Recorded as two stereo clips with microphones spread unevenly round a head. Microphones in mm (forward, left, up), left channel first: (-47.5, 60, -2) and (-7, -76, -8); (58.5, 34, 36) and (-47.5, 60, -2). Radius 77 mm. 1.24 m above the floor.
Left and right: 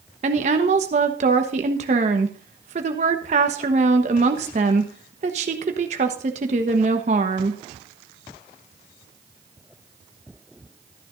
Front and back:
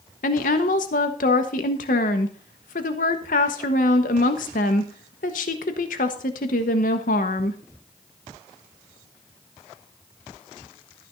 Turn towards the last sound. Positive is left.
turn(degrees=-25)